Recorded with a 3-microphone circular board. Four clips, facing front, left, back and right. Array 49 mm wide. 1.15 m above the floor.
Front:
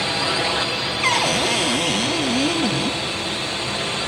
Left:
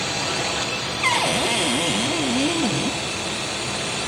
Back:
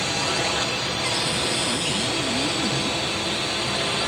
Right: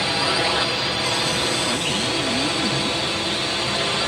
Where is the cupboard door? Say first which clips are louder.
Left 7 dB, front 10 dB; 45° left.